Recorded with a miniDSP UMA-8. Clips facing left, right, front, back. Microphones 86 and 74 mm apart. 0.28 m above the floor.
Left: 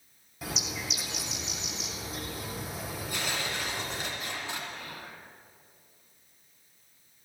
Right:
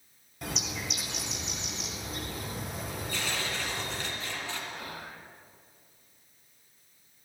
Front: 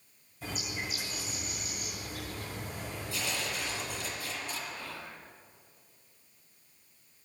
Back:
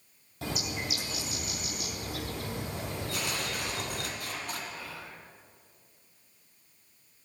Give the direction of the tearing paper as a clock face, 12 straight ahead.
7 o'clock.